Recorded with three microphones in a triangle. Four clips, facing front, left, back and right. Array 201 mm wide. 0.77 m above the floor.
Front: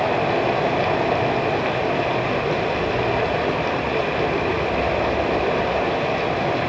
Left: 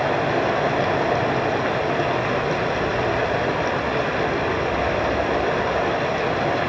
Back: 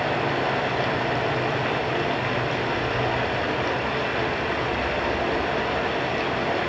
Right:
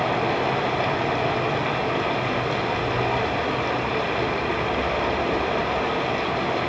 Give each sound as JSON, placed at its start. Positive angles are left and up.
{"t": 0.0, "sound": "running water", "azimuth_deg": 45, "distance_m": 1.1}